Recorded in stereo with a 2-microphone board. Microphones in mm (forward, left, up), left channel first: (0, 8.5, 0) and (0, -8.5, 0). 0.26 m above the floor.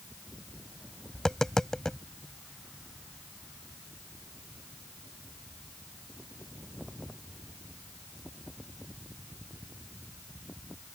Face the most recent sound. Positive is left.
turn(degrees=30)  # may be behind; listen again after turning